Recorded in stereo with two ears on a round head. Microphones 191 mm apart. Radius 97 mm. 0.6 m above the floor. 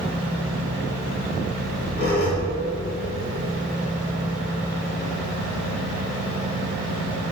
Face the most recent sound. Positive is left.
turn(degrees=45)  # may be behind; listen again after turning